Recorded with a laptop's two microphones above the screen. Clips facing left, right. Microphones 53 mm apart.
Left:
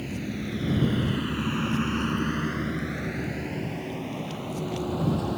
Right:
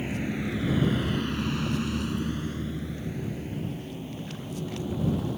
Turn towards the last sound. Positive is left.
turn(degrees=80)